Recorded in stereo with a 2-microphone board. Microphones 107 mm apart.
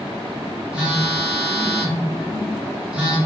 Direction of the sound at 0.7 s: 10° right (ahead or behind).